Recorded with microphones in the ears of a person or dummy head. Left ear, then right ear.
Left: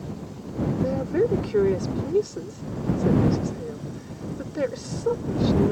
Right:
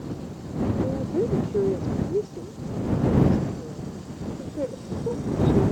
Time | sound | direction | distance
0.8 | a woman speaking | 60° left (ahead or behind) | ?